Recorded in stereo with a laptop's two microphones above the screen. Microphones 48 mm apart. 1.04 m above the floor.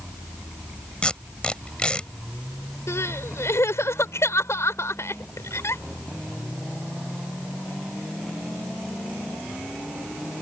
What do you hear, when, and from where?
1.0 s tape being pulled: 20° left (ahead or behind)
2.9 s crying: 70° left (ahead or behind)